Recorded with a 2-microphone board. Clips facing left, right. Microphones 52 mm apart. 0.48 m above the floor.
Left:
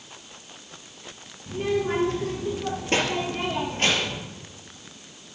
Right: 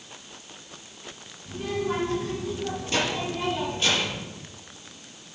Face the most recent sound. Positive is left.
turn(degrees=60)  # may be behind; listen again after turning